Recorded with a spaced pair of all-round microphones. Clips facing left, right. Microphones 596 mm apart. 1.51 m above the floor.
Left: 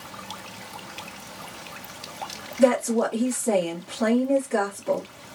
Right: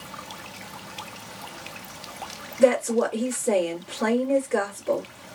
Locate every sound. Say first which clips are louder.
2.6 s a woman speaking: even; 65° left (ahead or behind), 1.5 m